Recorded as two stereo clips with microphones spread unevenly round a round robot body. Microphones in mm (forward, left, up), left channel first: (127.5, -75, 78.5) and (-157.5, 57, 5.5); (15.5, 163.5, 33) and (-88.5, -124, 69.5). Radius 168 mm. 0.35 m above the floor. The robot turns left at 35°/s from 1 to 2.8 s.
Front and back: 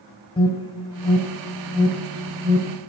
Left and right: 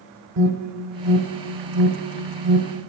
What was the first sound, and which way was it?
An alarm, 110° right.